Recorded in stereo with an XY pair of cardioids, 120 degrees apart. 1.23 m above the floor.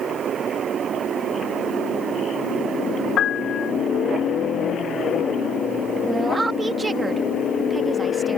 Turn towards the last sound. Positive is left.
turn(degrees=-20)